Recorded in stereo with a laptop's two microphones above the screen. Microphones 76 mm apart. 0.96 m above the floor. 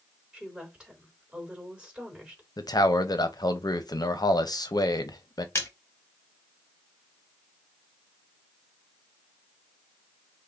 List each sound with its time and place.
0.3 s a woman speaking: 10° right (ahead or behind), 3 m
2.6 s a man speaking: 60° left (ahead or behind), 0.6 m
5.5 s a splash: 35° left (ahead or behind), 0.9 m